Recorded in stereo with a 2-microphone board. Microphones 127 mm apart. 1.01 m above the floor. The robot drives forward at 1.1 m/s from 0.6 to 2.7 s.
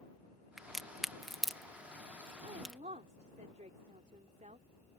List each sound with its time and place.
0.6 s a crack: centre (ahead or behind)
2.4 s a woman speaking: 75° right (ahead or behind); by 4.7 s 70° right (ahead or behind)